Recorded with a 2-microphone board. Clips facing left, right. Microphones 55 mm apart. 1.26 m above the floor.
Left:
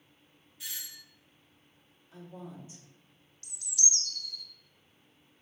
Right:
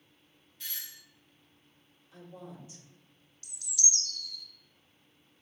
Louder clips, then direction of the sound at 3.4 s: Even; 55° left (ahead or behind).